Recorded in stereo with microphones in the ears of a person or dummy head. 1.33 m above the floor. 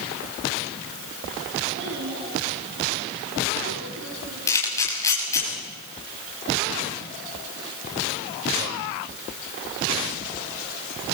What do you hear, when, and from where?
1.7 s a child speaking: 65° right (ahead or behind), 6 m; by 4.4 s 75° right (ahead or behind), 6.5 m
4.5 s a camera shutter: 15° left (ahead or behind), 7.5 m